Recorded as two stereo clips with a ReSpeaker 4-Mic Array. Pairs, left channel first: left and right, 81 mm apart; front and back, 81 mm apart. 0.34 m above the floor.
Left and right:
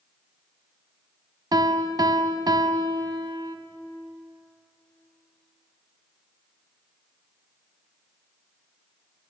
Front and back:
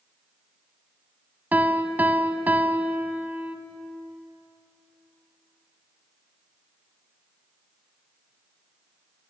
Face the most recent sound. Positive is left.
turn(degrees=-110)